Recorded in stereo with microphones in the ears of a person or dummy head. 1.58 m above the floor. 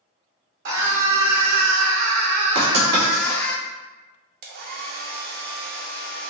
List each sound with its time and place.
0.7 s a scream: 70° right (ahead or behind), 1.2 m; by 3.5 s 5° left (ahead or behind), 0.9 m
2.5 s writing: 70° right (ahead or behind), 1.9 m
4.4 s a hair dryer: 60° right (ahead or behind), 0.5 m